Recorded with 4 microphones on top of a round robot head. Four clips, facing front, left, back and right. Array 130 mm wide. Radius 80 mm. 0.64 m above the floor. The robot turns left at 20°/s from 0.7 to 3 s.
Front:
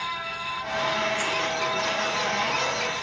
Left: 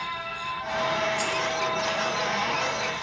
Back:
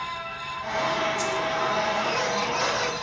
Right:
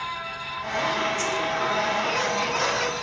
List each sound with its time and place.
1.2 s a dropped coin: 25° left; by 1.5 s 20° left